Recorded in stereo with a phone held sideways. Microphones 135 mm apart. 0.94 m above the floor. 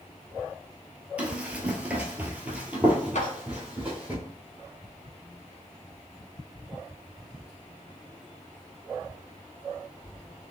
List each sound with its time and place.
1.2 s running footsteps: 10° right (ahead or behind), 1.0 m
3.1 s a clap: 60° left (ahead or behind), 0.8 m